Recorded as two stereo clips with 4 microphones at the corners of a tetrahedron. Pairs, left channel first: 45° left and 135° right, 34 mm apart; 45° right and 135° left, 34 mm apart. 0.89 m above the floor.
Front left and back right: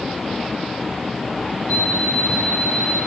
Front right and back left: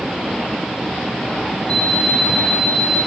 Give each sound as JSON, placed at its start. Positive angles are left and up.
{"t": 1.7, "sound": "an alarm clock", "azimuth_deg": 10, "distance_m": 7.0}